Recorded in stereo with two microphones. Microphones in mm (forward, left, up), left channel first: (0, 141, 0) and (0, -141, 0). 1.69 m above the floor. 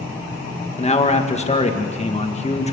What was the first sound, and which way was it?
A man speaking, 25° left (ahead or behind).